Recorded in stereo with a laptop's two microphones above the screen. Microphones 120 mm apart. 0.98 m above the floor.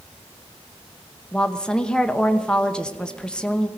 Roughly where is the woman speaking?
Centre.